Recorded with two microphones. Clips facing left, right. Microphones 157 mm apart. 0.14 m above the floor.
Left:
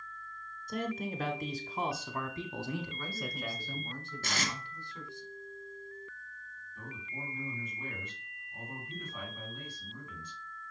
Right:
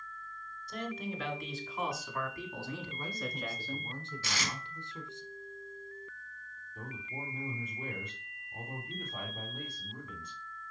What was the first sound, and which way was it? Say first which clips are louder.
A man speaking: left 3 dB; 45° left (ahead or behind).